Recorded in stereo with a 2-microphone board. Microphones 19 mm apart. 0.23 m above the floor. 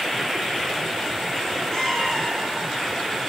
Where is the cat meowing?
35° left (ahead or behind), 2 m; by 3.3 s 65° left (ahead or behind), 2.5 m.